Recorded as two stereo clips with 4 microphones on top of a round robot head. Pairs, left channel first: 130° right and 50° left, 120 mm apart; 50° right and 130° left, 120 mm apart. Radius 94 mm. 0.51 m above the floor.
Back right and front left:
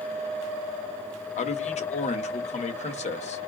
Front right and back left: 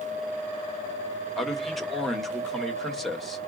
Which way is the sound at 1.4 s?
140° right.